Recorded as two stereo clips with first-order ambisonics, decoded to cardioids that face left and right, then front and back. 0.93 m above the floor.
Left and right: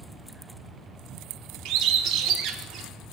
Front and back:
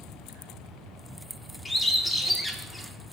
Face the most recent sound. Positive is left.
turn(degrees=-80)